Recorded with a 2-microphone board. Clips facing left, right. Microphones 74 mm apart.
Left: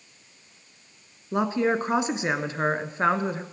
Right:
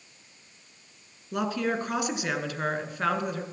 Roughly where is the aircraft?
No aircraft in this recording.